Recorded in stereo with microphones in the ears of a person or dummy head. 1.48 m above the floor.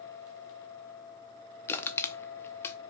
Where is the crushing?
15° left (ahead or behind), 0.6 m.